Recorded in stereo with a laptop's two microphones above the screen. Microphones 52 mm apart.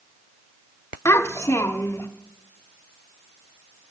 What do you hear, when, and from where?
1.1 s a child speaking: 80° left, 0.7 m